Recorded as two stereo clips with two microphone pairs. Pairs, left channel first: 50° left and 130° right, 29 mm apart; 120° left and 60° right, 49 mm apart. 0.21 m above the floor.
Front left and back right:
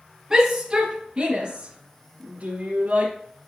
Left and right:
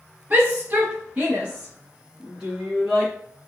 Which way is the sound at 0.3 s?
80° right.